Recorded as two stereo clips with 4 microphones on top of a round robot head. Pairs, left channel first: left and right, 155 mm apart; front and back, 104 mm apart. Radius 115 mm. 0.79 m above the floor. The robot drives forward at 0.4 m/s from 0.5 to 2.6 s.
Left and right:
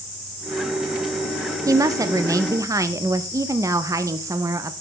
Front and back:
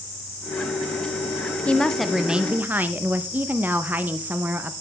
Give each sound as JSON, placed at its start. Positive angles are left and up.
{"t": 1.7, "sound": "a woman speaking", "azimuth_deg": -60, "distance_m": 0.8}